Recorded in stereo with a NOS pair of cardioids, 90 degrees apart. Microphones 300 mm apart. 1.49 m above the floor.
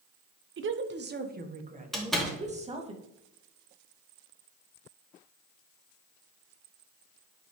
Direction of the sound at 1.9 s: Straight ahead.